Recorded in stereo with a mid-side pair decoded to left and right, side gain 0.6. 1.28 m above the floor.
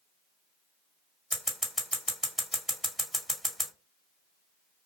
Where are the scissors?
Straight ahead, 1.7 m.